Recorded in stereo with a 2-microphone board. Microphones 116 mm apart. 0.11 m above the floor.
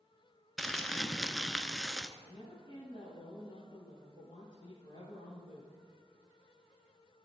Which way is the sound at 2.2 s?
45° left (ahead or behind).